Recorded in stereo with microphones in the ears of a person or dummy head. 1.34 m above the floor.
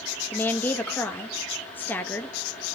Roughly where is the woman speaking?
Centre.